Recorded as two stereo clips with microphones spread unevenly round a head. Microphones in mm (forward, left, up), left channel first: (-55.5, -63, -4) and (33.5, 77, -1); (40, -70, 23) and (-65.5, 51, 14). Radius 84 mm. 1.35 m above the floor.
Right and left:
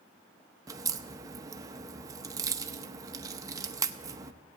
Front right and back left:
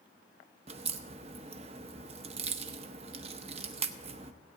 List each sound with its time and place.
0.7 s a crack: 110° left, 0.6 m